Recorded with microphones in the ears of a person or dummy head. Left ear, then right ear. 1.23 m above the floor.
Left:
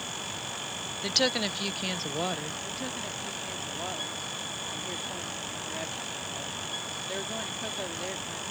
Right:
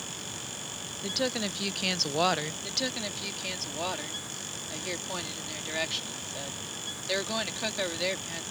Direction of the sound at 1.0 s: 35° left (ahead or behind).